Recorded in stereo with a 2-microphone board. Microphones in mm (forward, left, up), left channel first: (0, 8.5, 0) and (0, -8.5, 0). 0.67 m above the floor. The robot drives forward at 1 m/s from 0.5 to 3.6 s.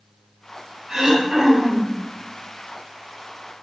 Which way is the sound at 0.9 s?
30° right (ahead or behind).